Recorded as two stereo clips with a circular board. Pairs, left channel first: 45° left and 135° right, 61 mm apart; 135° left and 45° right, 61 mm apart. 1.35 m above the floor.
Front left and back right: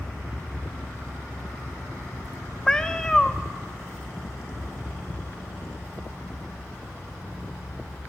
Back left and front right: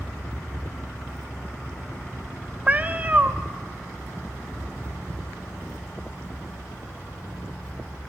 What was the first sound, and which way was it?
A cat meowing, 25° right.